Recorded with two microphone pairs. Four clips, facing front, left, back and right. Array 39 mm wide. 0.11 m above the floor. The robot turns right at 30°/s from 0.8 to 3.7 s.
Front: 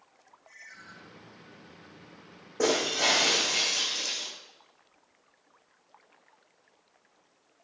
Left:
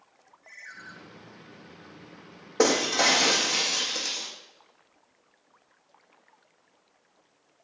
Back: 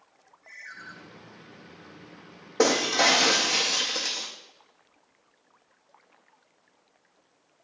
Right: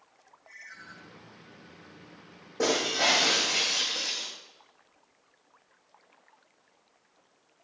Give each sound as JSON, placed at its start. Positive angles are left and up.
{"t": 0.4, "sound": "a ringtone", "azimuth_deg": 135, "distance_m": 4.0}
{"t": 2.6, "sound": "breaking glass", "azimuth_deg": 125, "distance_m": 4.0}